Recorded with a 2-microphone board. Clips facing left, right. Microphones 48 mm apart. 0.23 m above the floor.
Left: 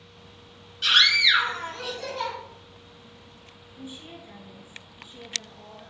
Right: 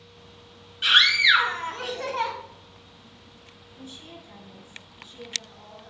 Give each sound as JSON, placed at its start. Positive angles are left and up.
{"t": 0.8, "sound": "a scream", "side_deg": -20, "distance_m": 1.6}
{"t": 3.8, "sound": "a woman speaking", "side_deg": 20, "distance_m": 3.0}